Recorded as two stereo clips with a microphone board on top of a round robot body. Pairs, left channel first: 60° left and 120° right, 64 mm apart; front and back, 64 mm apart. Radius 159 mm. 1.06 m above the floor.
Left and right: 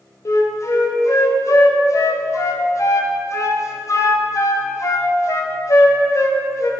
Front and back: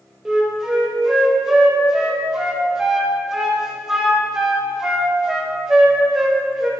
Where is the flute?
95° left, 0.8 m.